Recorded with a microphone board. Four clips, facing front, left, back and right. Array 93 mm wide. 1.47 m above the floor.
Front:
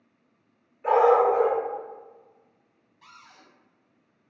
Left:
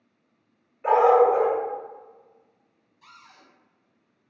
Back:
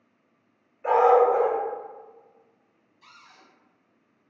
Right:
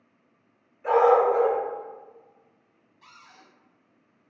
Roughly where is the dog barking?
Left.